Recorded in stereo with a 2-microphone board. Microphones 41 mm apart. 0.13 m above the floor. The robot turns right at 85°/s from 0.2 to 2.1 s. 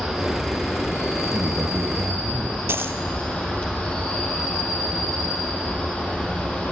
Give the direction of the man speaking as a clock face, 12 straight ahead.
4 o'clock.